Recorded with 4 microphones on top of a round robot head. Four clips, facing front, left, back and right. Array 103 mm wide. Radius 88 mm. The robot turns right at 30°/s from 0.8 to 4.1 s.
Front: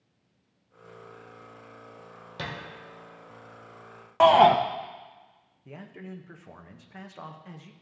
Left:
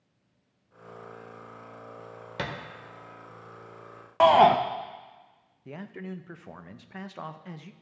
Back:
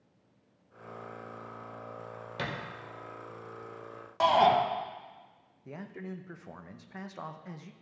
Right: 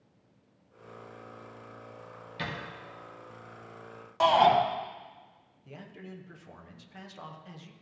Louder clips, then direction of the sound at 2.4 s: Left 3 dB, even; 90° left.